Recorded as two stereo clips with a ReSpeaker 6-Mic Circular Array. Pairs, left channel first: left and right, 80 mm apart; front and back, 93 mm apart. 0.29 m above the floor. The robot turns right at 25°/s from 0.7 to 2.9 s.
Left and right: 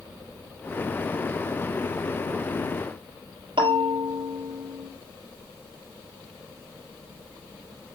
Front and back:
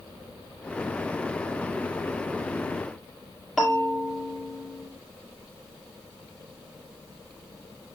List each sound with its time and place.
3.6 s a bell: 90° right, 2.5 m